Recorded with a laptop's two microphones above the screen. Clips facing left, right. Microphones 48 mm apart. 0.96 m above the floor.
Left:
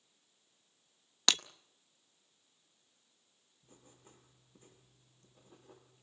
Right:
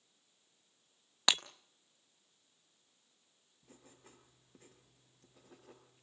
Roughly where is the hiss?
I don't hear a hiss.